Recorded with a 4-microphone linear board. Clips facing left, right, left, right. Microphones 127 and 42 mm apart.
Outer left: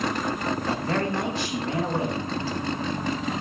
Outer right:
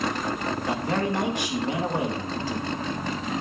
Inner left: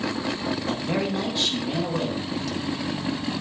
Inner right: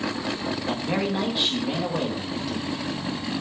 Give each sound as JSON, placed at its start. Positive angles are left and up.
{"t": 0.7, "sound": "a man speaking", "side_deg": -15, "distance_m": 1.7}